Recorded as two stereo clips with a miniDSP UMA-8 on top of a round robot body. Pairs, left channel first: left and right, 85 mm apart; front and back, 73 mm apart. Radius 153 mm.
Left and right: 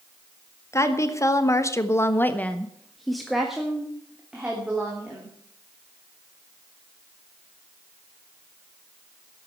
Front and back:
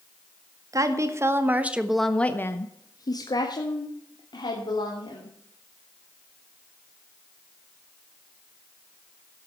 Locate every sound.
0.7 s a woman speaking: 145° left, 1.9 m; by 5.3 s 15° right, 3.5 m